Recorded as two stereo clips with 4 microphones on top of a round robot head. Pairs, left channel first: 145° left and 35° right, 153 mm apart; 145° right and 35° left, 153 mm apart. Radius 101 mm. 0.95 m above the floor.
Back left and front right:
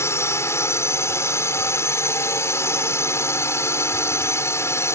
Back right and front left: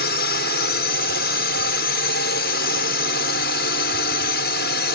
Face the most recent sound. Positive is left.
turn(degrees=-140)